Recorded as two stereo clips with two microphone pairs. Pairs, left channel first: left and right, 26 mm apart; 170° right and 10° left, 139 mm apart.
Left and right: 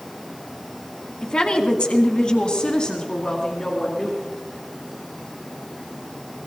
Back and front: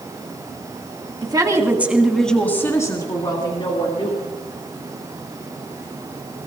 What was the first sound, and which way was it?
A woman speaking, 50° left.